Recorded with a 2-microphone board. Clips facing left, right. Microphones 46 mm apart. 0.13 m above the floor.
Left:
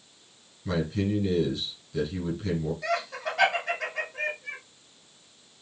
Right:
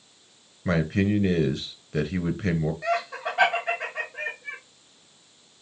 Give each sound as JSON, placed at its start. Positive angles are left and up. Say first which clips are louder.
{"t": 0.7, "sound": "a man speaking", "louder": "right 4 dB", "side_deg": -50, "distance_m": 2.0}
{"t": 2.8, "sound": "laughter", "louder": "right 3 dB", "side_deg": -20, "distance_m": 4.5}